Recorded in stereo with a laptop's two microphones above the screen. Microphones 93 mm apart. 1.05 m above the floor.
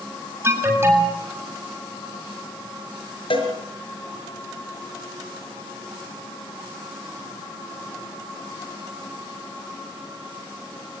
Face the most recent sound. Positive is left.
turn(degrees=70)  # may be behind; listen again after turning